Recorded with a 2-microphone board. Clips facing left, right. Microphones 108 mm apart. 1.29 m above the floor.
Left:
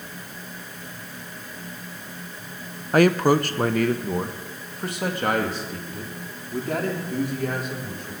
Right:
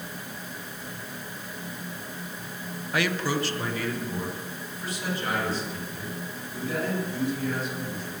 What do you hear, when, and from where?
2.9 s a man speaking: 45° left (ahead or behind), 0.6 m; by 8.1 s 65° left (ahead or behind), 4.5 m